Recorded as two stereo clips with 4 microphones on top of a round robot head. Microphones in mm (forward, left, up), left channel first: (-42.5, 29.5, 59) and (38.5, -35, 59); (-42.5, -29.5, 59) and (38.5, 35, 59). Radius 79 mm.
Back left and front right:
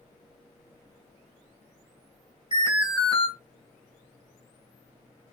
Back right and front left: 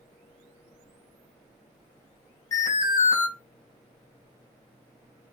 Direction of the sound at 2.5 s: 85° right.